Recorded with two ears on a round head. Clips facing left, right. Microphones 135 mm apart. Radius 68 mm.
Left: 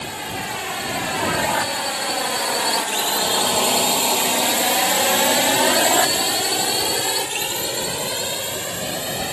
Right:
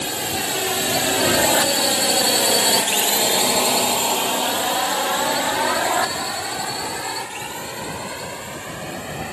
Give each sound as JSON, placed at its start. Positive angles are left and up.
{"t": 0.0, "sound": "a drone", "side_deg": -50}